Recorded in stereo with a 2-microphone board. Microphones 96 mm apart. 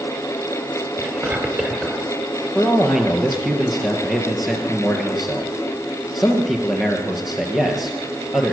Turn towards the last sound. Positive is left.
turn(degrees=0)  # may be behind; listen again after turning